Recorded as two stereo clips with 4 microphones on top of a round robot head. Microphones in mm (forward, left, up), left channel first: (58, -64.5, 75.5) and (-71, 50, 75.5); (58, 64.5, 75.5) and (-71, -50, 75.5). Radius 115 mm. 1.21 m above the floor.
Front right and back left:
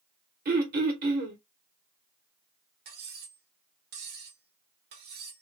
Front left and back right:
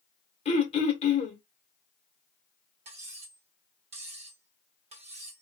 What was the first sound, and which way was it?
Throat clearing, 100° left.